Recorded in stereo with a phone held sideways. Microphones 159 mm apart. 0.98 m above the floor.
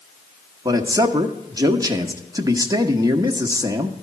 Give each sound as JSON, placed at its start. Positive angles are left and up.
{"t": 0.7, "sound": "a man speaking", "side_deg": -20, "distance_m": 0.9}